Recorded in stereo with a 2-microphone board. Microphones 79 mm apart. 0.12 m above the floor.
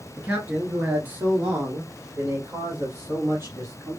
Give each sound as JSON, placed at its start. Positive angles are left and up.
{"t": 0.2, "sound": "a man speaking", "side_deg": -20, "distance_m": 1.4}